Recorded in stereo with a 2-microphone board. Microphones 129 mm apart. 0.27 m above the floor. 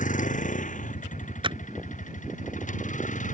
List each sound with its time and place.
0.0 s a vehicle: 75° left (ahead or behind)
1.4 s a clap: 40° right (ahead or behind)